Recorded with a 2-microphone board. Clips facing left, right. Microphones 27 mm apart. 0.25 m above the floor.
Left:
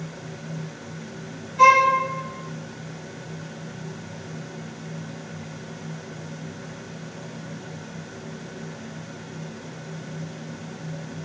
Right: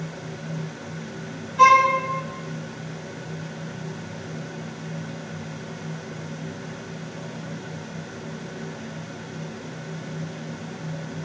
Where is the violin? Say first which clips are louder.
Even; 15° right (ahead or behind), 1.2 m.